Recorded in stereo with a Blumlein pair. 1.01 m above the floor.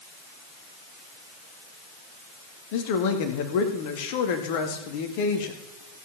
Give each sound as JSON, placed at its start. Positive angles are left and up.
{"t": 2.7, "sound": "a man speaking", "azimuth_deg": 50, "distance_m": 1.7}